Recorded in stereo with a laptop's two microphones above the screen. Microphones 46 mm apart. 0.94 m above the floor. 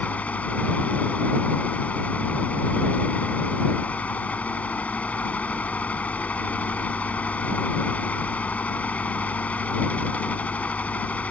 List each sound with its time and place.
0.0 s a fan: 35° left (ahead or behind)